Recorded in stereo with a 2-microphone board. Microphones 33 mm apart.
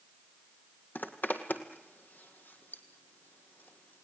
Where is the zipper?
70° left (ahead or behind), 1.7 m.